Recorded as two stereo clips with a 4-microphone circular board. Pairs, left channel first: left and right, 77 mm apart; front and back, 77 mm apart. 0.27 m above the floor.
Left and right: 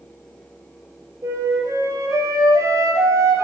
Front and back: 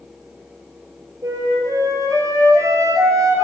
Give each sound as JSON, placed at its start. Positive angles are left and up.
{"t": 1.2, "sound": "a flute", "azimuth_deg": -140, "distance_m": 4.5}